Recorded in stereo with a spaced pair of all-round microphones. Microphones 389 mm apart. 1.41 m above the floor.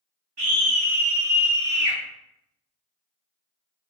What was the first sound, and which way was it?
A scream, 80° right.